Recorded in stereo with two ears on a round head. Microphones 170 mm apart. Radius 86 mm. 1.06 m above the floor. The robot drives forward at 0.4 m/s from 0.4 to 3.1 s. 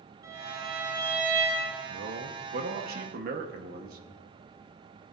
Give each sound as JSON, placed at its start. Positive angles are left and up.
{"t": 0.2, "sound": "a violin", "side_deg": -20, "distance_m": 3.0}
{"t": 1.9, "sound": "a man speaking", "side_deg": -70, "distance_m": 1.1}